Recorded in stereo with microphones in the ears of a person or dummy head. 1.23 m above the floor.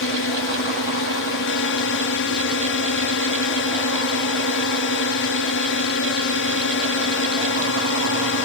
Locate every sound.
0.0 s a drone: 60° left (ahead or behind)